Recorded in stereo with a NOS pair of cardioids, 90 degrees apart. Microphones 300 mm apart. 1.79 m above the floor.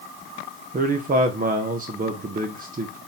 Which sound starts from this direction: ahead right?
A man speaking, at 0.7 s.